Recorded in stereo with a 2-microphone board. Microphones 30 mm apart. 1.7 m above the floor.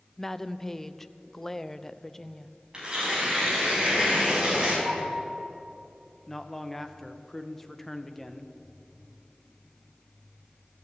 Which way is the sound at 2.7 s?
30° right (ahead or behind).